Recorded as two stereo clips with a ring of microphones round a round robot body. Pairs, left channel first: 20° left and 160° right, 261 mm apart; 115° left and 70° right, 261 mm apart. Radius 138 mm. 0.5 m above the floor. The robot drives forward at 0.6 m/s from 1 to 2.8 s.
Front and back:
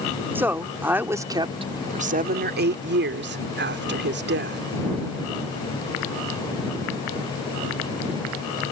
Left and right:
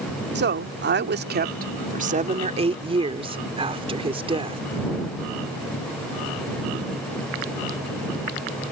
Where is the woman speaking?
80° right; by 4.6 s 130° right.